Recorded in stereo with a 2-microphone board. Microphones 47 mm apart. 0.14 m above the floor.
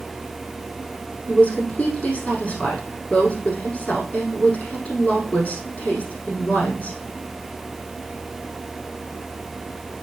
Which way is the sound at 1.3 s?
30° left (ahead or behind).